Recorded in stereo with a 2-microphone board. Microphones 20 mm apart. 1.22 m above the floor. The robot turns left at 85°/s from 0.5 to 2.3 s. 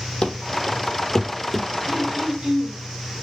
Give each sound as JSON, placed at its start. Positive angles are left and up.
{"t": 0.2, "sound": "running footsteps", "side_deg": 60, "distance_m": 2.0}
{"t": 1.9, "sound": "throat clearing", "azimuth_deg": -55, "distance_m": 4.5}